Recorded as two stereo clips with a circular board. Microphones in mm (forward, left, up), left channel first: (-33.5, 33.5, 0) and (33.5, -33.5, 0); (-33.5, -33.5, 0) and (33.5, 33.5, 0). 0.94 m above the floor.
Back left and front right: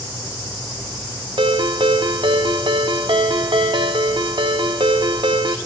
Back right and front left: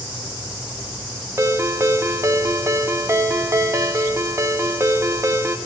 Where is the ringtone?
15° right, 0.7 m.